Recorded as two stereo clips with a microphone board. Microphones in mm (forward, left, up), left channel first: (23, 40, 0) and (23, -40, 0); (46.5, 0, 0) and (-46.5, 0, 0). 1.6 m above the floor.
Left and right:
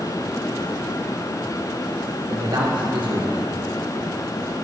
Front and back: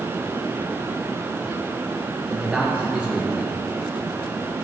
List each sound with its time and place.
2.3 s a man speaking: 105° right, 1.4 m